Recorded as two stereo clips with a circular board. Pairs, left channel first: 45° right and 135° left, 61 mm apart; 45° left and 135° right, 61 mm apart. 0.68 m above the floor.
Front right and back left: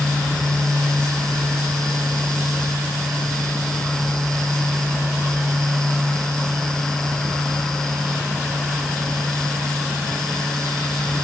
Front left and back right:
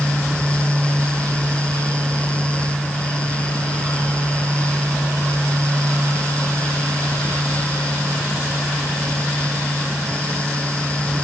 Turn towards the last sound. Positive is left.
No sound to turn to.